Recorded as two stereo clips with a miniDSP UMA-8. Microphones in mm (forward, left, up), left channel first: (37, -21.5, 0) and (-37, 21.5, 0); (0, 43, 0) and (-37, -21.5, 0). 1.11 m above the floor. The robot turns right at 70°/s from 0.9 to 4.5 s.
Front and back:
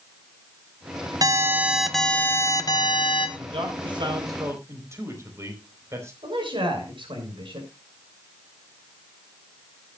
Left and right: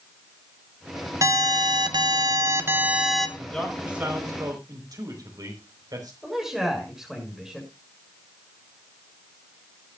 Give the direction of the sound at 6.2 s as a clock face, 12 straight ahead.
7 o'clock.